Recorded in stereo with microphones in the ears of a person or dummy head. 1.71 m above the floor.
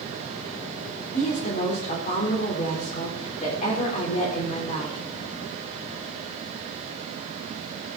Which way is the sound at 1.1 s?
50° left (ahead or behind).